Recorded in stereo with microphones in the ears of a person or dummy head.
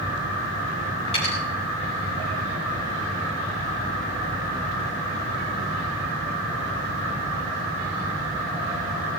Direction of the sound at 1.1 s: 35° left (ahead or behind).